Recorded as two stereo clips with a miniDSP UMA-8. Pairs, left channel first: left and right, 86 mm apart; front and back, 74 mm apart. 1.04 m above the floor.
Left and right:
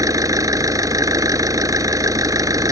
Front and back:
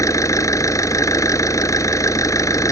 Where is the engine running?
45° right.